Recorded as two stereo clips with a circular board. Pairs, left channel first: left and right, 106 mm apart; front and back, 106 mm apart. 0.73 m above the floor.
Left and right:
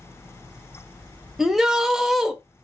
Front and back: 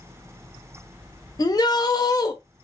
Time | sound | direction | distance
1.4 | a shout | 5° right | 0.6 m